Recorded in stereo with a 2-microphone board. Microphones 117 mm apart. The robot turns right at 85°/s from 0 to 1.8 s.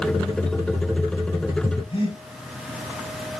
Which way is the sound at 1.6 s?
50° left (ahead or behind).